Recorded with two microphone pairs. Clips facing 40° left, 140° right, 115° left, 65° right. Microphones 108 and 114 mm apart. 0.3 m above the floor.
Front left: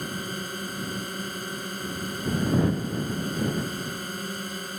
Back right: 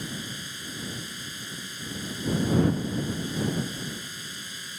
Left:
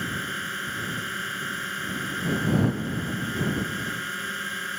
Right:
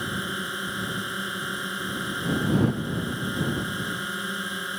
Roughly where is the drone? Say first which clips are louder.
Front left 4 dB, right 1 dB; ahead.